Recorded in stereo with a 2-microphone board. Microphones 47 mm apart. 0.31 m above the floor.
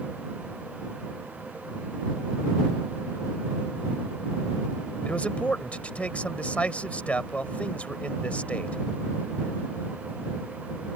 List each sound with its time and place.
5.0 s a man speaking: 30° left (ahead or behind)